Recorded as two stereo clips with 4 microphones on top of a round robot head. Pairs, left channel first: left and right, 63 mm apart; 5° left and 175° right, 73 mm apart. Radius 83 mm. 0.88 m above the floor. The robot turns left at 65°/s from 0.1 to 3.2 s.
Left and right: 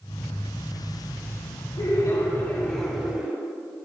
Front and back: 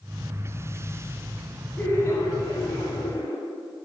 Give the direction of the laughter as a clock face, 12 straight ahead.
10 o'clock.